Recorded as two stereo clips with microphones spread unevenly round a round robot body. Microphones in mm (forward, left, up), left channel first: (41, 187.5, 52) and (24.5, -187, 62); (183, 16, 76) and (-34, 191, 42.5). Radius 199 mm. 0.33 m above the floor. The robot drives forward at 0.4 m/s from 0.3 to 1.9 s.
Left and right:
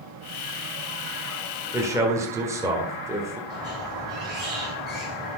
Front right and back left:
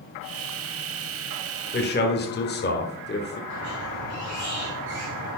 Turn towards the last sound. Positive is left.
turn(degrees=-175)